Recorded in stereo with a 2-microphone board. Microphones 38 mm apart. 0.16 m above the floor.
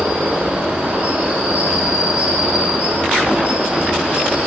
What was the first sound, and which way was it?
An insect, 55° right (ahead or behind).